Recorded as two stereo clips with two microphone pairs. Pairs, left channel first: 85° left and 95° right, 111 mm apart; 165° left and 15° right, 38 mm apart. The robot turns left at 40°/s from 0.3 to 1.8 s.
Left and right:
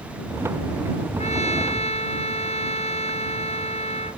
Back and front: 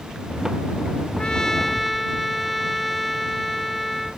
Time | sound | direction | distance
1.2 | a trumpet | 95° left | ?